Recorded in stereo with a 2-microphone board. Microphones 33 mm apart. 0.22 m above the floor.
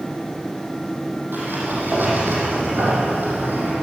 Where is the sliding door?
75° right (ahead or behind), 9.5 m.